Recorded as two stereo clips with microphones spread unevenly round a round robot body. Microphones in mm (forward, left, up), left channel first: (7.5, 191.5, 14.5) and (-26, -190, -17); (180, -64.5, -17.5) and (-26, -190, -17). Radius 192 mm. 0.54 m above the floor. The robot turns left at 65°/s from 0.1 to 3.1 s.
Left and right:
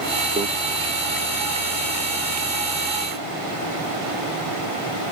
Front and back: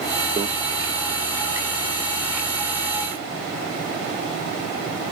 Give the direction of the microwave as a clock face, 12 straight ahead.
4 o'clock.